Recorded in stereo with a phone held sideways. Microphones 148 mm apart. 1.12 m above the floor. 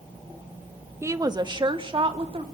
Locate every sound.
1.0 s a woman speaking: 15° right (ahead or behind), 0.9 m; by 2.4 s 40° right (ahead or behind), 3 m